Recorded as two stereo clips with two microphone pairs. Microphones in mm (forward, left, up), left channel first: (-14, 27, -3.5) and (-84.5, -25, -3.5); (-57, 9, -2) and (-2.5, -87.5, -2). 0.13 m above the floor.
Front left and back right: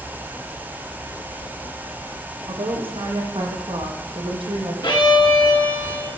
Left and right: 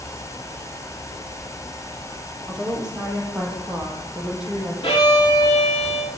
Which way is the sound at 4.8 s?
80° left.